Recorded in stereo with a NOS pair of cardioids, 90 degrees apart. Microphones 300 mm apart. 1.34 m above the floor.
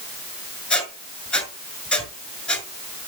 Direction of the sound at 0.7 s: 5° left.